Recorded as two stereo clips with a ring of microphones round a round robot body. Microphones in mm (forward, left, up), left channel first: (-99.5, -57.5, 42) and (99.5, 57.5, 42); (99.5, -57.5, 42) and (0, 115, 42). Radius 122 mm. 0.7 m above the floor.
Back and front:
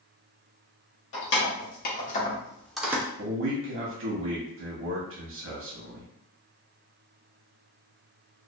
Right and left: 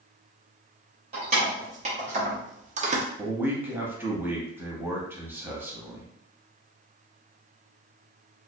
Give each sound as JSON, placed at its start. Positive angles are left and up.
{"t": 1.1, "sound": "keys jangling", "azimuth_deg": 180, "distance_m": 1.1}
{"t": 3.2, "sound": "a man speaking", "azimuth_deg": 40, "distance_m": 0.8}